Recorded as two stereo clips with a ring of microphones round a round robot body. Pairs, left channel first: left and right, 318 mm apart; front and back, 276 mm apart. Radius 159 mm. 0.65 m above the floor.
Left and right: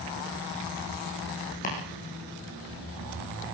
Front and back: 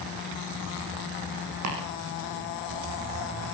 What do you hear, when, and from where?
1.6 s chopping: 155° left, 9 m